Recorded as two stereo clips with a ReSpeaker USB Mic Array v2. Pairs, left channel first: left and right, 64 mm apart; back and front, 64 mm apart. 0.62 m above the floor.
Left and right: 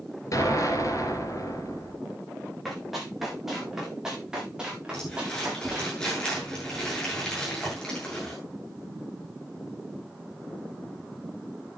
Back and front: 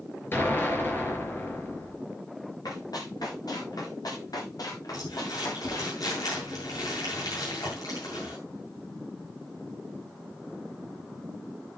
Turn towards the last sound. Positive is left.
turn(degrees=170)